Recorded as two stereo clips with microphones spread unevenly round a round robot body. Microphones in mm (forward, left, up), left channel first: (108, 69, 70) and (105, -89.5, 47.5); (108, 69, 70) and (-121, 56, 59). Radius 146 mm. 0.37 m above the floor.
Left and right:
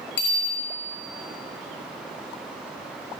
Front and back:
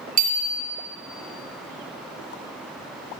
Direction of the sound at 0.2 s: 130° left.